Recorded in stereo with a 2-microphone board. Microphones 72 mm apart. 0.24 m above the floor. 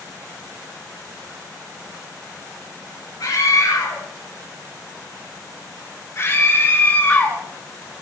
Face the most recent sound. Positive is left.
turn(degrees=20)  # may be behind; listen again after turning